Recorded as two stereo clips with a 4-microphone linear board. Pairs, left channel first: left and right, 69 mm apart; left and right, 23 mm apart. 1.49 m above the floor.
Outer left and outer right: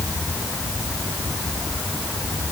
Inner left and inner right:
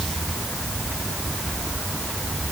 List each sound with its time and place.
Only background noise.